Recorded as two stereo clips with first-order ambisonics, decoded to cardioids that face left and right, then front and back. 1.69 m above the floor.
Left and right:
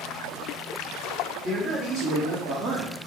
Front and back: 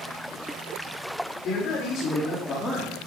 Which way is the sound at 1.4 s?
30° right.